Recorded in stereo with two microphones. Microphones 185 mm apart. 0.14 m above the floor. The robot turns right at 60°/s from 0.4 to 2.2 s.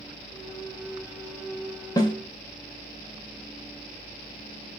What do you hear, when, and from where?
2.0 s a snare drum: 25° left (ahead or behind), 0.6 m